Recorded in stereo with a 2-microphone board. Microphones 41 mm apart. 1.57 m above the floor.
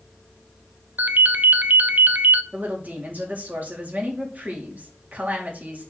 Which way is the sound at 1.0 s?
45° right (ahead or behind).